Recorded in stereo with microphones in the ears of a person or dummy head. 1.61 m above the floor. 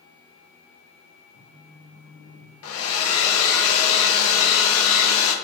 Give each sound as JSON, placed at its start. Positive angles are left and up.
{"t": 1.3, "sound": "a phone buzzing", "side_deg": 80, "distance_m": 1.9}
{"t": 2.6, "sound": "a hair dryer", "side_deg": 80, "distance_m": 0.6}